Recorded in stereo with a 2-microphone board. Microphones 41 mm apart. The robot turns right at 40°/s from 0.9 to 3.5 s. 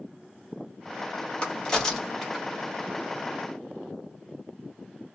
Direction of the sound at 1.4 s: 25° left (ahead or behind).